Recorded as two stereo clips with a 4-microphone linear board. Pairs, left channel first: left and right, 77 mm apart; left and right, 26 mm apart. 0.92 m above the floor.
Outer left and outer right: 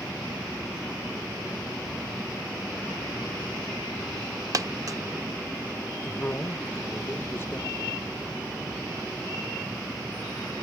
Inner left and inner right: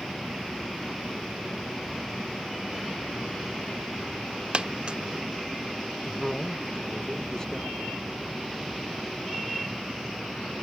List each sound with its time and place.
4.5 s a dropped coin: 50° right (ahead or behind), 0.6 m
6.0 s a man speaking: 30° left (ahead or behind), 1.1 m